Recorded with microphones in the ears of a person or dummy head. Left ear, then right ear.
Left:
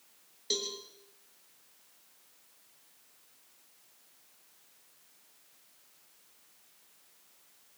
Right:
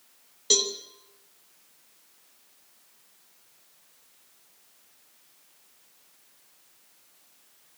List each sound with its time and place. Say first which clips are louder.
0.5 s a cowbell: right 10 dB; 40° right (ahead or behind), 3 m